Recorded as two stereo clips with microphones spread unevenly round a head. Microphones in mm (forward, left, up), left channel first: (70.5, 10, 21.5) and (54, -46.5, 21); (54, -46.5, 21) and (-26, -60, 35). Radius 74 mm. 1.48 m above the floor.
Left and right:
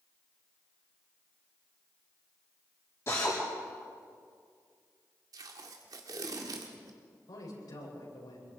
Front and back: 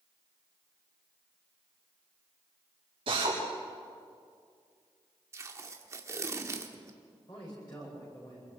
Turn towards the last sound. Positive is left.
turn(degrees=70)